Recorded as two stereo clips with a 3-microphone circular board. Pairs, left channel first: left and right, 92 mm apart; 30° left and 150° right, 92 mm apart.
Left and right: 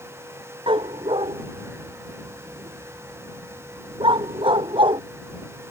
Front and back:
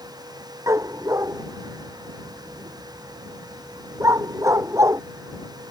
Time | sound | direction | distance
0.7 | a dog barking | 95° right | ?